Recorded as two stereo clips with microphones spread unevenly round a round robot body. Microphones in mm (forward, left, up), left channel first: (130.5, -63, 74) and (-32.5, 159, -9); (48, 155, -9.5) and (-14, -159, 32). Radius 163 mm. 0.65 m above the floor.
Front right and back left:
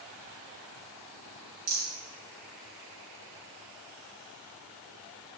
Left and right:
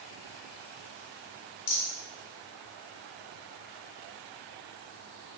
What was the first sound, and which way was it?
A rattle, 115° left.